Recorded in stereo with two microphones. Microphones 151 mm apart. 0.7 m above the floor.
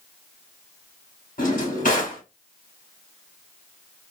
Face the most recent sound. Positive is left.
turn(degrees=65)  # may be behind; listen again after turning